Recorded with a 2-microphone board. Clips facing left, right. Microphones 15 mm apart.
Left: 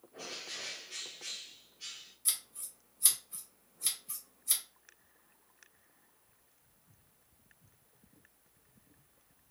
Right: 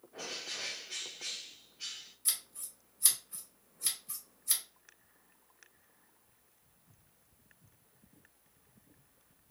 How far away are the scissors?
About 1.2 m.